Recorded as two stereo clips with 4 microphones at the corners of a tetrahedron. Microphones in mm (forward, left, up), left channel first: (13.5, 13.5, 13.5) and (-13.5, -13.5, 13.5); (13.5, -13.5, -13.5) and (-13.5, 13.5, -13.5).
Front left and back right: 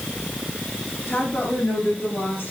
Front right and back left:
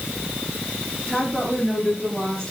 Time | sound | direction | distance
1.1 | a woman speaking | 30° left | 5.5 m